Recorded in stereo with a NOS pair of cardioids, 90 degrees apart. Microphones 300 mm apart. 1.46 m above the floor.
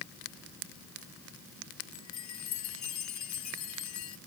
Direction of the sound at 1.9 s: 60° left.